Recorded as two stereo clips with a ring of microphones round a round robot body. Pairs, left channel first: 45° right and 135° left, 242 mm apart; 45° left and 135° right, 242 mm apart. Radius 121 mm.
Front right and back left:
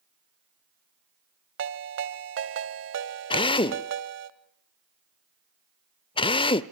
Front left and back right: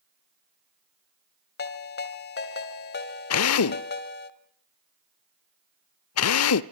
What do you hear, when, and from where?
1.6 s a ringtone: 95° left, 1.6 m
3.3 s a drill: 25° left, 0.7 m